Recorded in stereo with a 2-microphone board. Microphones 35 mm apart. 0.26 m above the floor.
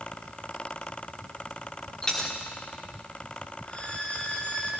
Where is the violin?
35° left (ahead or behind), 3 m.